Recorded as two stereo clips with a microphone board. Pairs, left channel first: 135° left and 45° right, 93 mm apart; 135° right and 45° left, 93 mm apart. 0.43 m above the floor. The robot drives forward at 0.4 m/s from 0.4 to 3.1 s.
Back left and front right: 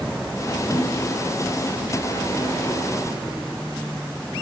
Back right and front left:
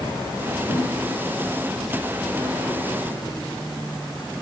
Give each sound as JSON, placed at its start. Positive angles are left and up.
{"t": 0.7, "sound": "a thud", "azimuth_deg": -130, "distance_m": 6.0}